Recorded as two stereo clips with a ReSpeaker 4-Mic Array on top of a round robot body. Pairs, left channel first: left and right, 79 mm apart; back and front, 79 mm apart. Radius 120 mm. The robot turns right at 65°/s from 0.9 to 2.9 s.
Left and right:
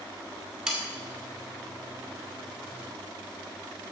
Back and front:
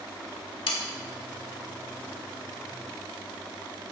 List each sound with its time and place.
0.7 s sawing: 170° right, 1.3 m